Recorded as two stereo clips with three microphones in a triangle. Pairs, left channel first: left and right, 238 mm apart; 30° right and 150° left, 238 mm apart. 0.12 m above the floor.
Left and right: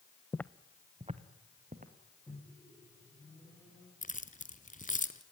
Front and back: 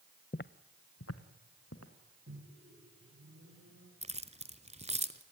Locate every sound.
0.3 s footsteps: 15° left, 0.5 m; by 1.9 s 35° right, 2.5 m
2.3 s a microwave: 170° left, 7 m
4.0 s keys jangling: 115° left, 1.1 m